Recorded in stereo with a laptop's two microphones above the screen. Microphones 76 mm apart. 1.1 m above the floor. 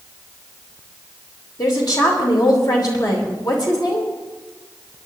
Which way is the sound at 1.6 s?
60° left (ahead or behind).